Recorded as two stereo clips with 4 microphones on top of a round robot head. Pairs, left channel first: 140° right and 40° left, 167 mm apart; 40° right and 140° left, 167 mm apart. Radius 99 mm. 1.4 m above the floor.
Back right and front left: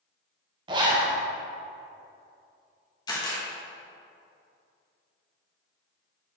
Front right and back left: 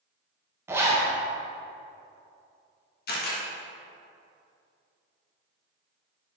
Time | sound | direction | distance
0.7 | a zipper | 80° left | 0.6 m
3.1 | a camera shutter | 75° right | 1.4 m